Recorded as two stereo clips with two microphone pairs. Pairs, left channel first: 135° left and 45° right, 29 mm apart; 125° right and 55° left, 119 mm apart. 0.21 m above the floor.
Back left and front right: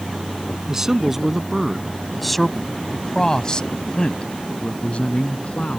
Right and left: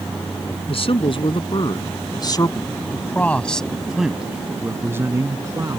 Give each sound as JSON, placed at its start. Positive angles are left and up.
{"t": 0.7, "sound": "a man speaking", "azimuth_deg": -110}